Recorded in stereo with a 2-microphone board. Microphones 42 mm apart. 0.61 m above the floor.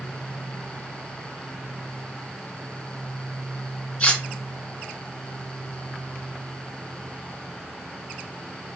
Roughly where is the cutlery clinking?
Left.